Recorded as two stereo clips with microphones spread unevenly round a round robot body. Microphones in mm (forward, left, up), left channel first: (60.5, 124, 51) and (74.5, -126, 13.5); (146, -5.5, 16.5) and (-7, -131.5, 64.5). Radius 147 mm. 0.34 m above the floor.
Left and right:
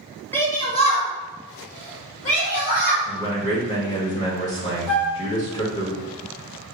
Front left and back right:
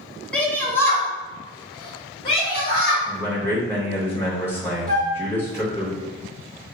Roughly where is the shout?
Ahead.